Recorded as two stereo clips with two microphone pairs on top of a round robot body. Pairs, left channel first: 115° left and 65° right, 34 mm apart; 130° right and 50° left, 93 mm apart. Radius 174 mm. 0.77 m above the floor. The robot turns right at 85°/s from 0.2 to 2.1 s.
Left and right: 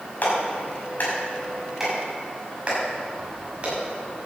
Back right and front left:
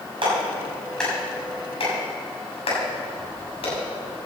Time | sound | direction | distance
0.2 | a clap | 80° left | 6.5 m